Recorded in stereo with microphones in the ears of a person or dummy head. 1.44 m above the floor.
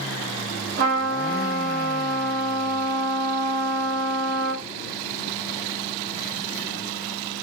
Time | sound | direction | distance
0.8 | a trumpet | 50° right (ahead or behind) | 0.9 m